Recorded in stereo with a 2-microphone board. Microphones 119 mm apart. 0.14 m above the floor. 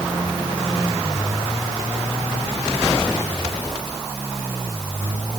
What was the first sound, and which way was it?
Only background noise.